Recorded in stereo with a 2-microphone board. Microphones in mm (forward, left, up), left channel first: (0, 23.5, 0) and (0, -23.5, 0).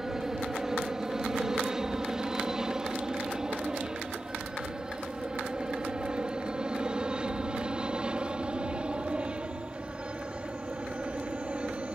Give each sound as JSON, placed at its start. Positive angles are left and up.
{"t": 0.0, "sound": "an aircraft", "side_deg": -10}